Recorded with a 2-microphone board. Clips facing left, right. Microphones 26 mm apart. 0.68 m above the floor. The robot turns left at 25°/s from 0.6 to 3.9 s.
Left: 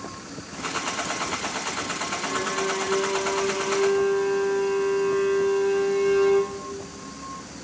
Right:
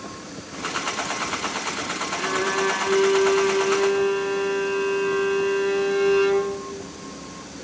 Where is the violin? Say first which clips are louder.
Right 5 dB; 105° right, 4 m; by 6.5 s 150° right, 4 m.